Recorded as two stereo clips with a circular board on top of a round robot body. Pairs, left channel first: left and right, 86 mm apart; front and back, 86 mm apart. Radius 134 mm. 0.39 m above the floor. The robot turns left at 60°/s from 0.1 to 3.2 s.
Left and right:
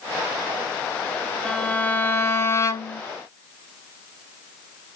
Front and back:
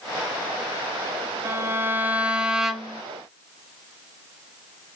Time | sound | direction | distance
1.4 | a violin | 165° left | 0.9 m